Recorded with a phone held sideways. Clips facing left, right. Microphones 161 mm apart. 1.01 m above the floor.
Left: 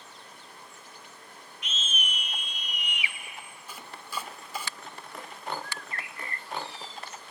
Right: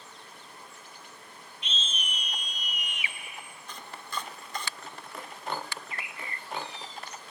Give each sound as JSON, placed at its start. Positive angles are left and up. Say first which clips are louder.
{"t": 1.6, "sound": "a scream", "louder": "left 1 dB", "side_deg": -30, "distance_m": 4.0}
{"t": 3.7, "sound": "chopping", "louder": "even", "side_deg": 10, "distance_m": 0.6}
{"t": 5.6, "sound": "a bird", "louder": "even", "side_deg": -20, "distance_m": 0.9}